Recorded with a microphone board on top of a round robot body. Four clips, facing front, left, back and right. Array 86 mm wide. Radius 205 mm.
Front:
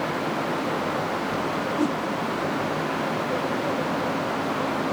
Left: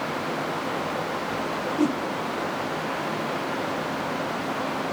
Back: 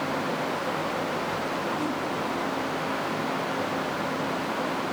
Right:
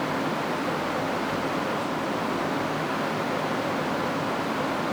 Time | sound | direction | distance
1.8 | a whoosh | 60° left | 2.5 m